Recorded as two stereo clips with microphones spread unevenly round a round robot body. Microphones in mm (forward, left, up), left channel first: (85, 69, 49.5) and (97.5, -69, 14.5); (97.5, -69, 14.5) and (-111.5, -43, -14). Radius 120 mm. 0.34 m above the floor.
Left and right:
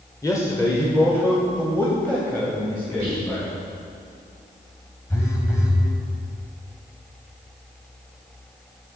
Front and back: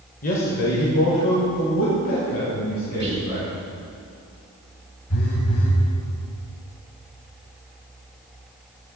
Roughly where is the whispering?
Behind right.